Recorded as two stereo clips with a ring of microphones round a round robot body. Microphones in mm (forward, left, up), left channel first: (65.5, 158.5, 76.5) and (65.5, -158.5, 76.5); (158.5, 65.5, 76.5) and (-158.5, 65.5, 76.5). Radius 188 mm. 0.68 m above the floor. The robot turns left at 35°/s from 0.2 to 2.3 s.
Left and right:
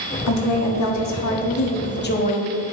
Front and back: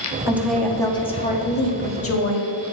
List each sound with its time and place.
0.3 s a woman speaking: 100° left, 1.5 m; by 2.5 s 30° left, 1.5 m